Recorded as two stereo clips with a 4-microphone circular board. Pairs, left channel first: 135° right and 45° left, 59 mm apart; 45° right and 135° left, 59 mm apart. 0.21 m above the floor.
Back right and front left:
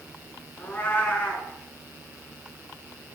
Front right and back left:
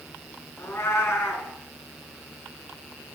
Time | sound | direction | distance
0.6 | a cat meowing | 75° right | 1.2 m